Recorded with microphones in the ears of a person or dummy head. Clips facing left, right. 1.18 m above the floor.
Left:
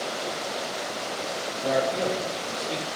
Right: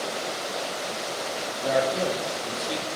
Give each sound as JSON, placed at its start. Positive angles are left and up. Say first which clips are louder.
{"t": 1.6, "sound": "a man speaking", "louder": "right 1 dB", "side_deg": -5, "distance_m": 1.6}